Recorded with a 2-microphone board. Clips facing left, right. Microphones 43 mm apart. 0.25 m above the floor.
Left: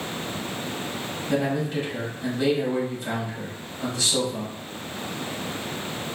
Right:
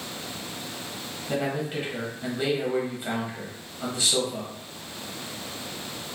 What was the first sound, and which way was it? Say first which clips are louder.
A man speaking: left 3 dB; 20° right (ahead or behind).